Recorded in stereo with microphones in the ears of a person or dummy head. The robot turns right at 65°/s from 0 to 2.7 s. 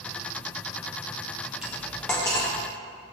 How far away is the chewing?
I don't hear chewing.